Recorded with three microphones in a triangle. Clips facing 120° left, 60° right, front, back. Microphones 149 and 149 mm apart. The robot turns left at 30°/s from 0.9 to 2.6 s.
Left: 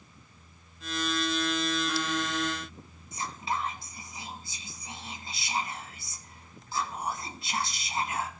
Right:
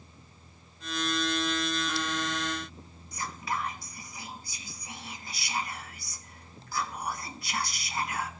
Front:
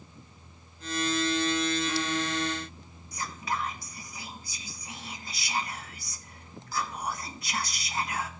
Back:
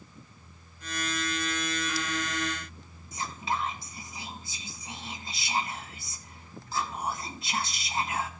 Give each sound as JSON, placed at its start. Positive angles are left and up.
{"t": 3.1, "sound": "whispering", "azimuth_deg": 150, "distance_m": 1.1}